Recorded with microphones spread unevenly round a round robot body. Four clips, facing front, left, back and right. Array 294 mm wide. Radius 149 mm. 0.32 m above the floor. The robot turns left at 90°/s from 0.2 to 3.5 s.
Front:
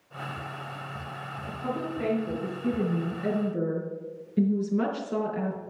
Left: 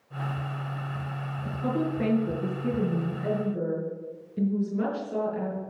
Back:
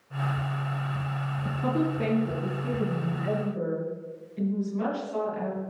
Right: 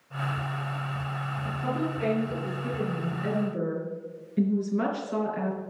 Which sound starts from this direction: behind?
A woman speaking, at 1.4 s.